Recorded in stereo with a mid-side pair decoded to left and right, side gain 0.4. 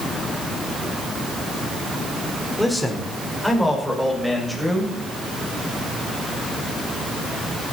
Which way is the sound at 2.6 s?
Straight ahead.